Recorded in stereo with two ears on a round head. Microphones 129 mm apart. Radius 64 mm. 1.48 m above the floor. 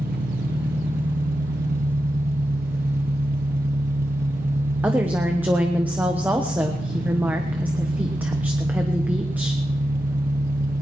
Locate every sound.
0.0 s an engine running: 70° right (ahead or behind), 1.5 m
4.8 s a woman speaking: 10° right (ahead or behind), 1.0 m